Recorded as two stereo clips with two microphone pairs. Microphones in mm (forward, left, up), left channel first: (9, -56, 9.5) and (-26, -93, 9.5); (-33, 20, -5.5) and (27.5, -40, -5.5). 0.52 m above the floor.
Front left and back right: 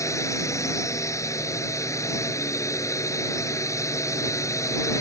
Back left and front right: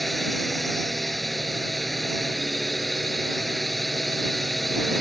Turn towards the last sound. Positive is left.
turn(degrees=45)